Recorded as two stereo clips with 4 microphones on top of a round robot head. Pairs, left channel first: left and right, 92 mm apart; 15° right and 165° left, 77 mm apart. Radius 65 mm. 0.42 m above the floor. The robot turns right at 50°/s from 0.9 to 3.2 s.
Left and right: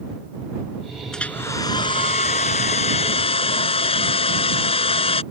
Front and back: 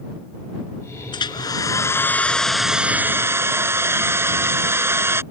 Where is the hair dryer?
5° left; by 5.2 s 110° left.